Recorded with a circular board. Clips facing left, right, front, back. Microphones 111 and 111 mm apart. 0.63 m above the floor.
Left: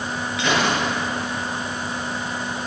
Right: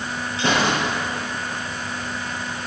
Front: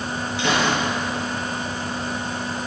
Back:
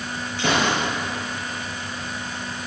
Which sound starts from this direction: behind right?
A gunshot, at 0.4 s.